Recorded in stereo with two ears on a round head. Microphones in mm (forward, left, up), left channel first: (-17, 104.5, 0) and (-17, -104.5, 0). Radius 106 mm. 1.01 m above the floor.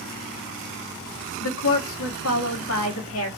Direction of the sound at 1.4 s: 60° left (ahead or behind).